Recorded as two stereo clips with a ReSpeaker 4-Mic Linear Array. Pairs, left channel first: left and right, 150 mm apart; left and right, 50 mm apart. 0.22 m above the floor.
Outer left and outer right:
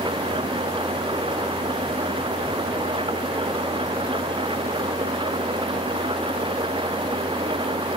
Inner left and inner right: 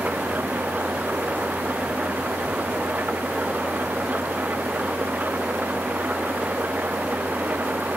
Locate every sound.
0.0 s an engine running: 35° right (ahead or behind)